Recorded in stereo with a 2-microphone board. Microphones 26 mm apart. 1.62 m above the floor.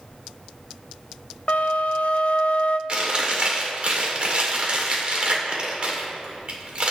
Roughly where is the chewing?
Right.